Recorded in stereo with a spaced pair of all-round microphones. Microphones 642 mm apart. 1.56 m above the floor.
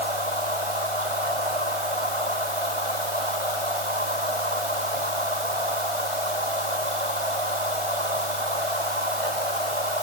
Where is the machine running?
50° right (ahead or behind).